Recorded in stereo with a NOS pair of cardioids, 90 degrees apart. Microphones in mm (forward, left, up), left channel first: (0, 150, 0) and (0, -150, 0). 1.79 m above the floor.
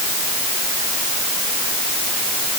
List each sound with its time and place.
Only background noise.